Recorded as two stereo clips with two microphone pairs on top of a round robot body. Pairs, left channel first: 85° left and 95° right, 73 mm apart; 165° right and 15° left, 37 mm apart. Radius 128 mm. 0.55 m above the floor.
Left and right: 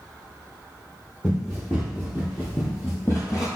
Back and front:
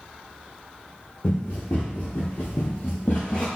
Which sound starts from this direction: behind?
Running footsteps, at 1.2 s.